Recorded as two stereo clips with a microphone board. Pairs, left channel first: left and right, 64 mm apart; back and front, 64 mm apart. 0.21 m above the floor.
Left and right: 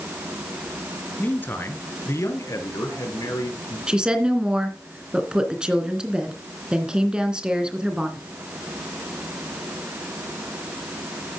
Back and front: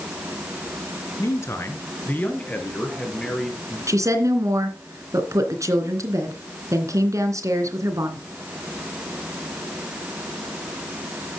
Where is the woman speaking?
15° right, 2.5 m.